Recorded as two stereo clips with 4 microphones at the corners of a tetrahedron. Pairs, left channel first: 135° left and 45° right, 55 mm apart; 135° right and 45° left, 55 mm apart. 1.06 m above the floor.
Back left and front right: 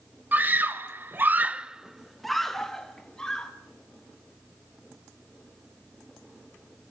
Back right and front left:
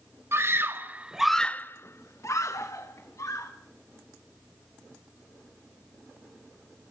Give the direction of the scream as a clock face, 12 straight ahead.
12 o'clock.